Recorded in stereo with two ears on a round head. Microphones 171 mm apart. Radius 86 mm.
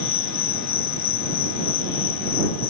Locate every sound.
0.0 s an insect: 80° left